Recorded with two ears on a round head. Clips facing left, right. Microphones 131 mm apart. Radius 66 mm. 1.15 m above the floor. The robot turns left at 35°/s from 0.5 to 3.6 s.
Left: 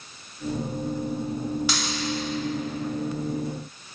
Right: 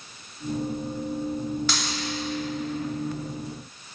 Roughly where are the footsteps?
I don't hear footsteps.